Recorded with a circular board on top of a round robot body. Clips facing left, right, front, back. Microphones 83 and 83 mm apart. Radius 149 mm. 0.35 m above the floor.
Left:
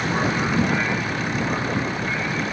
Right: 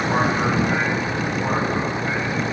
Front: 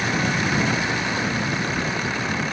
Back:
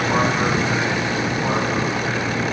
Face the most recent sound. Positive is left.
turn(degrees=-155)